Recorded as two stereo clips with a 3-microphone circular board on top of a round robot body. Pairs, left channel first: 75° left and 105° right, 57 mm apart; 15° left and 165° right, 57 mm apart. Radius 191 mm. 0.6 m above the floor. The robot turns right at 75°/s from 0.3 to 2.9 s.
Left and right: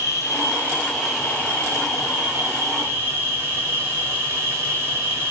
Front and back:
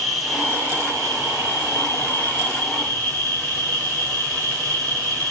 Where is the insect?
110° left, 1.1 m; by 5.3 s 55° right, 1.1 m.